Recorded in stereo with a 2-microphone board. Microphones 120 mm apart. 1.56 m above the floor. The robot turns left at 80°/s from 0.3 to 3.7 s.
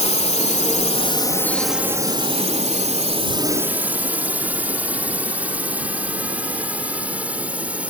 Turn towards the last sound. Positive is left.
turn(degrees=-10)  # may be behind; listen again after turning